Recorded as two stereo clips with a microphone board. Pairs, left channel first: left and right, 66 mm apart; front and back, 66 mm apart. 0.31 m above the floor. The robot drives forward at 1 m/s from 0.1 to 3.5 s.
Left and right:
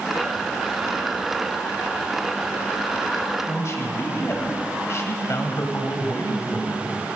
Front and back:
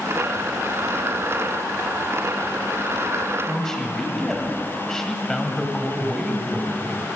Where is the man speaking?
75° left, 1.7 m.